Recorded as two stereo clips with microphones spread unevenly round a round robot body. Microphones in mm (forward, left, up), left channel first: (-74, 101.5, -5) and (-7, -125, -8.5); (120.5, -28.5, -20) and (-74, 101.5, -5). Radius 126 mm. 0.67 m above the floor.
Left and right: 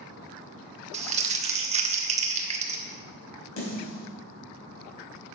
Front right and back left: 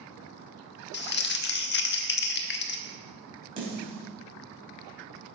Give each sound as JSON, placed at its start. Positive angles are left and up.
{"t": 0.9, "sound": "crumpling", "azimuth_deg": -15, "distance_m": 0.9}
{"t": 3.6, "sound": "a snare drum", "azimuth_deg": 80, "distance_m": 5.5}